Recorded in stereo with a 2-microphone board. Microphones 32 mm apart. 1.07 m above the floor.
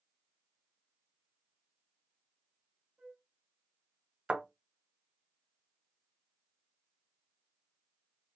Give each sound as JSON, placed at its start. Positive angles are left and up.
{"t": 3.0, "sound": "a flute", "side_deg": -40, "distance_m": 1.3}
{"t": 4.3, "sound": "a thud", "side_deg": -35, "distance_m": 0.9}